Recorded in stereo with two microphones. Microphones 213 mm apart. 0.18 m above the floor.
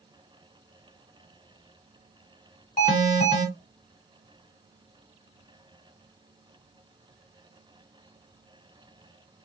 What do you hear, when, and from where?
2.8 s an alarm: 35° left (ahead or behind), 1.4 m